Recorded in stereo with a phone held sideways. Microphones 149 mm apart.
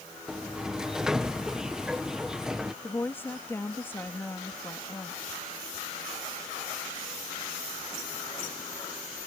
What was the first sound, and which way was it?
A sliding door, 5° right (ahead or behind).